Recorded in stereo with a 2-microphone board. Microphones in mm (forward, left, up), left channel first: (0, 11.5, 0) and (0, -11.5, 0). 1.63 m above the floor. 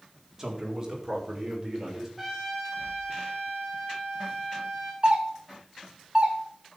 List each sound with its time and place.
0.4 s a man speaking: 15° right (ahead or behind), 3.5 m; by 2.1 s 20° right (ahead or behind), 6.5 m
2.2 s a trumpet: 5° right (ahead or behind), 3 m
5.0 s a doorbell: 40° right (ahead or behind), 2.5 m